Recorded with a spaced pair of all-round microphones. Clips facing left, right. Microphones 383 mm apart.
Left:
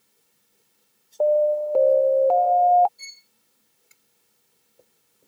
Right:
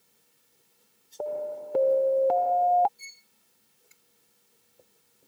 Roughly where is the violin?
Left.